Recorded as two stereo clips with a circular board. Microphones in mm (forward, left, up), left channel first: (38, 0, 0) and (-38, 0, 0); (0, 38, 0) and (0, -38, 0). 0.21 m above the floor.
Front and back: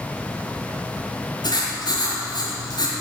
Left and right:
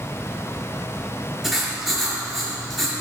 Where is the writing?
5° right, 4 m.